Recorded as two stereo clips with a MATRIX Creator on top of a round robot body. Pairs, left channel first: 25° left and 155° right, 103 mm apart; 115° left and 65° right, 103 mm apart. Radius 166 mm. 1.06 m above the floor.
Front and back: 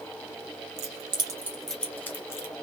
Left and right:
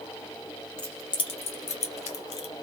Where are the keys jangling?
165° right, 0.6 m; by 2.5 s 85° left, 1.2 m.